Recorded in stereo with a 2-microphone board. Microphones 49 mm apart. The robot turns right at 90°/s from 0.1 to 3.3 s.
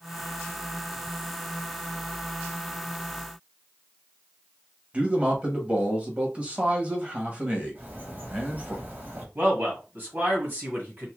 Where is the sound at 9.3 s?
40° right (ahead or behind), 1.7 m.